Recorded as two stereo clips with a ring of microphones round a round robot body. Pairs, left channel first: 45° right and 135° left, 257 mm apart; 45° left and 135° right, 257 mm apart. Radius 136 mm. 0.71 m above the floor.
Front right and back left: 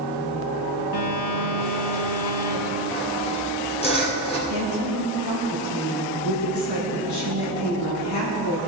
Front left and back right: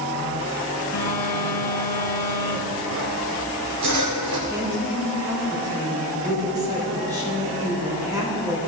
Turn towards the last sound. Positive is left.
turn(degrees=-60)